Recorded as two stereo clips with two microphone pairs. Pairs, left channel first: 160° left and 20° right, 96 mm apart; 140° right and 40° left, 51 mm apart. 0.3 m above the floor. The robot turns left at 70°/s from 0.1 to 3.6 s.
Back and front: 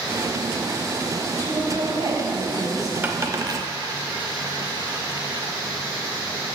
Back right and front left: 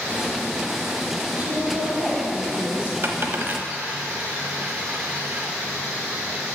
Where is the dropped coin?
45° left, 0.7 m; by 5.5 s 5° left, 0.7 m.